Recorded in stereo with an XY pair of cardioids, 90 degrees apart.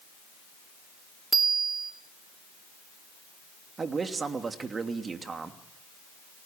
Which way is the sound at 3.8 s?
40° right.